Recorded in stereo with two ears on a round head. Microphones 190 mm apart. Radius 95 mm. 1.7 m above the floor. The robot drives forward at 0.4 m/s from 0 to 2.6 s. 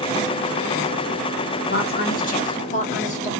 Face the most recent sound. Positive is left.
turn(degrees=35)  # may be behind; listen again after turning